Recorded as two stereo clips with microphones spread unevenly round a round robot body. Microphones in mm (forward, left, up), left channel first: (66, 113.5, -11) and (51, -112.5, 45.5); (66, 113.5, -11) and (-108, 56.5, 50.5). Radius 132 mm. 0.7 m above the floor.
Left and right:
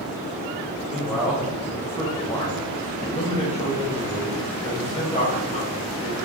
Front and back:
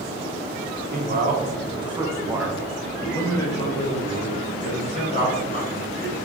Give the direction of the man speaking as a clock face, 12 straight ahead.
7 o'clock.